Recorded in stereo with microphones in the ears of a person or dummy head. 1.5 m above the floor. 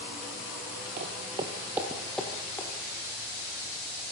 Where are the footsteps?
35° right (ahead or behind), 1.7 m; by 2.7 s 10° left (ahead or behind), 2.5 m.